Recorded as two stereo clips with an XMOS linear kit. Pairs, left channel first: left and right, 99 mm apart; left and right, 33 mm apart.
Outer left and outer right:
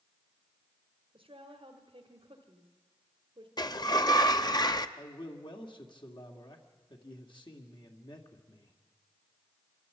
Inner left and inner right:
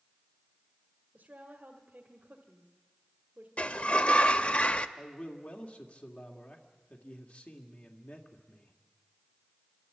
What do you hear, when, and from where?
1.1 s a woman speaking: 70° right (ahead or behind), 1.6 m
3.6 s a sliding door: 45° left (ahead or behind), 0.7 m
5.0 s a man speaking: 55° left (ahead or behind), 2 m